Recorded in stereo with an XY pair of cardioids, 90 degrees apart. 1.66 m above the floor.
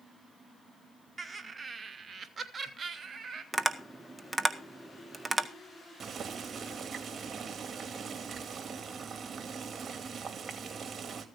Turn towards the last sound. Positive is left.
turn(degrees=-45)